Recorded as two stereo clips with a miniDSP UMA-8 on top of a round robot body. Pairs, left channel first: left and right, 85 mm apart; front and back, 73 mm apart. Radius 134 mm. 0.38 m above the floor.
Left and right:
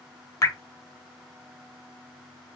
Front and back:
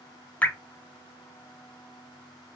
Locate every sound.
0.4 s dripping: 60° left, 0.9 m